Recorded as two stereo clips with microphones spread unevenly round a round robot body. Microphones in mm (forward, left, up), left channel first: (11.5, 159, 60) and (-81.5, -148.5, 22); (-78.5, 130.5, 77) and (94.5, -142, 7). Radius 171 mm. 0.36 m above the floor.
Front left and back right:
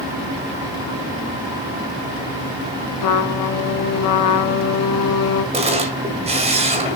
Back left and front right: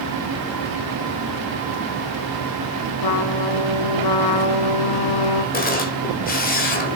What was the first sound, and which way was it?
A trumpet, 100° left.